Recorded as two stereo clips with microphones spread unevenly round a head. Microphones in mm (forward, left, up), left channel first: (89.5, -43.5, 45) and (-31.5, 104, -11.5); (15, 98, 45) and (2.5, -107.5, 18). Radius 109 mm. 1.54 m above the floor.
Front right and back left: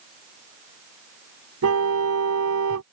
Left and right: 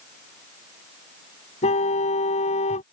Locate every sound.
1.6 s a car horn: 145° left